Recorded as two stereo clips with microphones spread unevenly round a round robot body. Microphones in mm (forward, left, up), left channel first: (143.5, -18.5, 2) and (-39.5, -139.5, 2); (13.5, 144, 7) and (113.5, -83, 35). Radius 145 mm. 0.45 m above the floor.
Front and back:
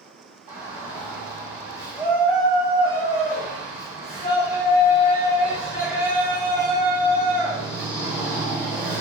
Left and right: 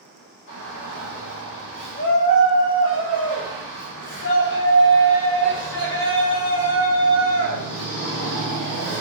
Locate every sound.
0.5 s a shout: 135° left, 1.8 m